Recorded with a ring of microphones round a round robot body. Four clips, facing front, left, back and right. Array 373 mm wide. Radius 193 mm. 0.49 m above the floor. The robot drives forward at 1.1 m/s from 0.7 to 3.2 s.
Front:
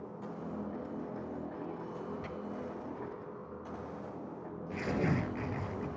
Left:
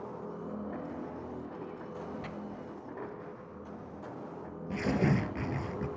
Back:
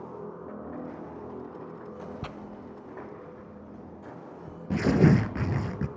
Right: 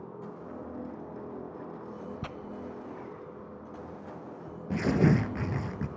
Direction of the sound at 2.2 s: 135° right.